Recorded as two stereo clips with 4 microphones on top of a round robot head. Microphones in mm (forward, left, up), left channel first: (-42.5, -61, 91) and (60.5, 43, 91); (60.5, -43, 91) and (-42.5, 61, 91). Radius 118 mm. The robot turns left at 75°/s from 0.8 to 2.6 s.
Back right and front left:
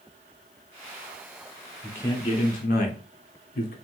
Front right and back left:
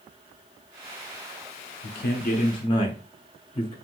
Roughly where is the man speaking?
Ahead right.